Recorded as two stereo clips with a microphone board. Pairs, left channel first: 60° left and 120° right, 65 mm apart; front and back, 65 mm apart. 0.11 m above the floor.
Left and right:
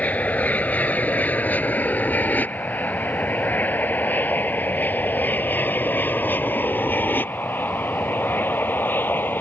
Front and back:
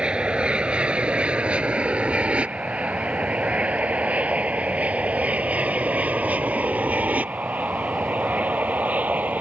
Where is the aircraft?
115° left.